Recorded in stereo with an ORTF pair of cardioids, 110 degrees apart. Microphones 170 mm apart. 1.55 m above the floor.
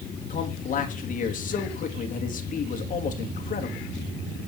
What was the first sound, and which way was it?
A man speaking, 50° left.